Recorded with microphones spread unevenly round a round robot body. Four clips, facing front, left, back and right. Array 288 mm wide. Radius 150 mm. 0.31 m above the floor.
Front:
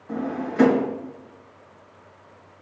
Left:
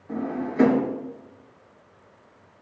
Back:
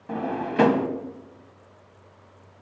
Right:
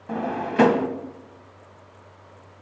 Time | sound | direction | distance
0.1 | a drawer | 110° right | 1.3 m